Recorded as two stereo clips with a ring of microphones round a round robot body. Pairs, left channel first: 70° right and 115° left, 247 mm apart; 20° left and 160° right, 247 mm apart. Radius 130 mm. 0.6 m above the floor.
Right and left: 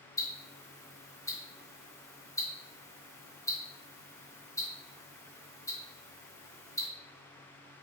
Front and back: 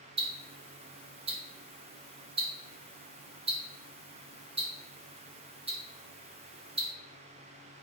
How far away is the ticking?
About 0.9 m.